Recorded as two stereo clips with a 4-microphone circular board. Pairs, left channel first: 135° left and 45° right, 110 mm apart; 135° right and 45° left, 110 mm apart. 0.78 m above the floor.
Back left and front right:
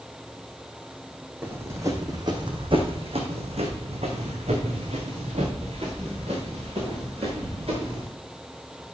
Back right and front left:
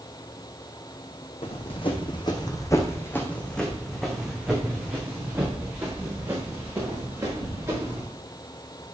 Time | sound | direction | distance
1.4 | running footsteps | 115° right | 2 m